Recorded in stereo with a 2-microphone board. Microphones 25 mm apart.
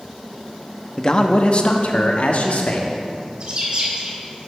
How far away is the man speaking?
About 0.8 m.